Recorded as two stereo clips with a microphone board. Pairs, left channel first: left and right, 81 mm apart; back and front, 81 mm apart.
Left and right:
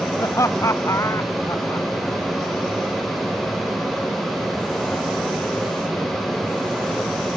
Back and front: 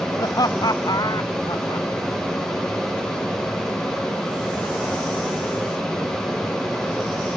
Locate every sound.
0.2 s laughter: 140° left; by 1.9 s 145° left